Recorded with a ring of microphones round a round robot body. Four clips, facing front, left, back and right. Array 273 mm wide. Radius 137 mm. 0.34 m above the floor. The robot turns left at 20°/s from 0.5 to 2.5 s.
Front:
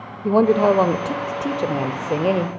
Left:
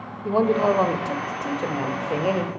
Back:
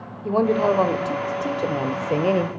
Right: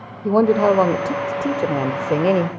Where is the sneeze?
No sneeze in this recording.